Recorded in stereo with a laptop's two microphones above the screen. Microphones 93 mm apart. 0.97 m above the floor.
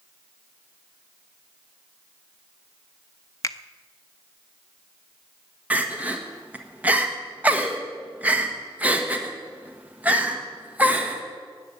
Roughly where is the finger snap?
Left.